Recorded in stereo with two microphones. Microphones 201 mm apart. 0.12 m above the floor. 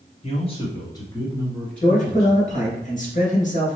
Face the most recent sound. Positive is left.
turn(degrees=40)  # may be behind; listen again after turning